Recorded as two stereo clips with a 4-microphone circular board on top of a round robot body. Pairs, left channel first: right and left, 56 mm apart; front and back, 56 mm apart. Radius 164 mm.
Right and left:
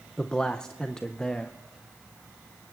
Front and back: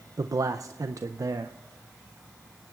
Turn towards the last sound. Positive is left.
turn(degrees=-165)